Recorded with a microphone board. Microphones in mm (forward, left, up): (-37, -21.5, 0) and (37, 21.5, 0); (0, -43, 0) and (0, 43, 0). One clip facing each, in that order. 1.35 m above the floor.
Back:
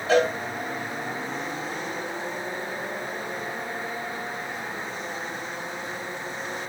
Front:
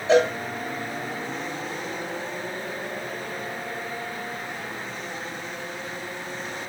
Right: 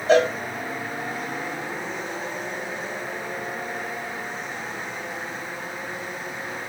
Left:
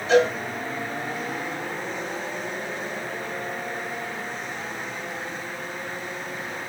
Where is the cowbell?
40° right, 7 m.